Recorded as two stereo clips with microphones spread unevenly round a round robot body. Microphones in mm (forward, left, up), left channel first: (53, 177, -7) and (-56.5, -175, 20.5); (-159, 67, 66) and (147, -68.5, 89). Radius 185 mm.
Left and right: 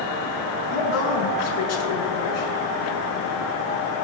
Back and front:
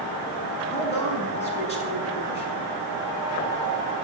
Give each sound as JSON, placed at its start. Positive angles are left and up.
{"t": 0.7, "sound": "a woman speaking", "azimuth_deg": 85, "distance_m": 6.0}